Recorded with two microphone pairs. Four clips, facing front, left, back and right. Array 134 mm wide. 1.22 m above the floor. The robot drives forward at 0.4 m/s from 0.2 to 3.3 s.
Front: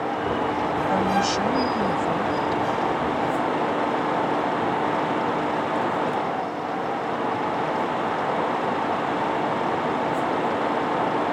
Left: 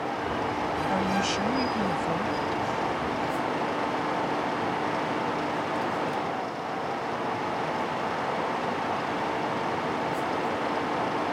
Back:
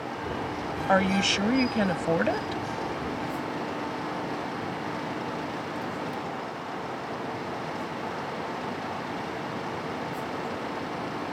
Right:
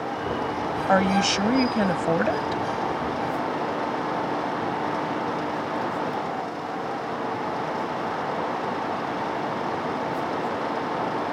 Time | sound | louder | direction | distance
0.9 | a woman speaking | right 9 dB, back 1 dB | 120° right | ?